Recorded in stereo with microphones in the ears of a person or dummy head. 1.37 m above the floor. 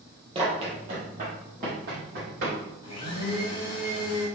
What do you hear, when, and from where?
0.3 s running footsteps: 30° right (ahead or behind), 1.5 m; by 2.6 s 55° right (ahead or behind), 3 m
2.8 s a blender: 25° left (ahead or behind), 1.7 m